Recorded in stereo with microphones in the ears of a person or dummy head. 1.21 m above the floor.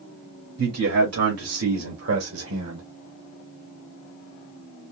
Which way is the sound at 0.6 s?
85° right.